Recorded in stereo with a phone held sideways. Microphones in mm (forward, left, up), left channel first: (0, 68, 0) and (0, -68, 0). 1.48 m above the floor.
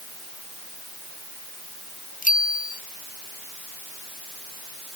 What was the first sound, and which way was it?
A bicycle bell, 85° left.